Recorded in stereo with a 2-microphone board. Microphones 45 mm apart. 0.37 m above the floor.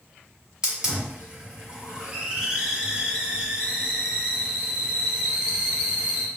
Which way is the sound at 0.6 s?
15° right (ahead or behind).